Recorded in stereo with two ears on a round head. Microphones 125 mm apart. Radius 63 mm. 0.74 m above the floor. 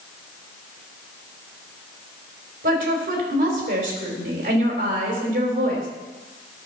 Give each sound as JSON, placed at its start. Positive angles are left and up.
{"t": 2.6, "sound": "a woman speaking", "side_deg": -70, "distance_m": 3.5}